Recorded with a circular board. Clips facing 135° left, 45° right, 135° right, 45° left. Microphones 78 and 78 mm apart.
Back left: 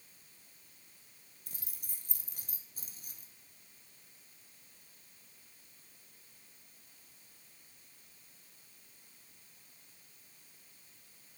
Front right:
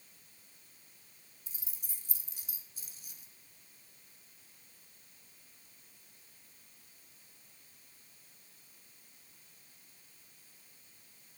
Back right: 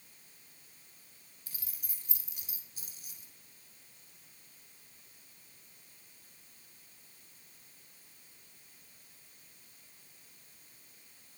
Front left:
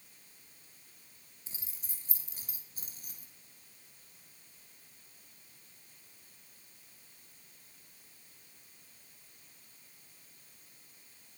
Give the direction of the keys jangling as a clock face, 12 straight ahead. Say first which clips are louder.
Back left 2 dB, front left 1 dB; 8 o'clock.